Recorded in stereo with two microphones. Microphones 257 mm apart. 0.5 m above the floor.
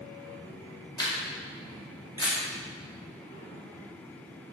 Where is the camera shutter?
15° left (ahead or behind), 0.6 m.